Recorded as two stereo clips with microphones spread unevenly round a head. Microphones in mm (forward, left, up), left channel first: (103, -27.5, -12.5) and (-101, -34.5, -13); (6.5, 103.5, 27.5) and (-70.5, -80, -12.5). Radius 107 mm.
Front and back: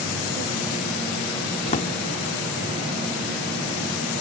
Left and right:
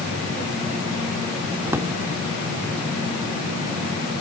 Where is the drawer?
25° right.